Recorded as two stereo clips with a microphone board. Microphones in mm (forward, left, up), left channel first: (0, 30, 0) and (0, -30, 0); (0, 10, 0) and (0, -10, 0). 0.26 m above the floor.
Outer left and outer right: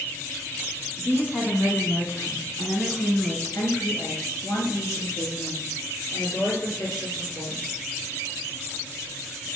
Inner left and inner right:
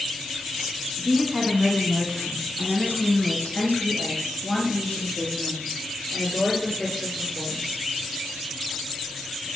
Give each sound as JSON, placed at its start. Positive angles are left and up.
{"t": 1.0, "sound": "a woman speaking", "side_deg": 30, "distance_m": 1.9}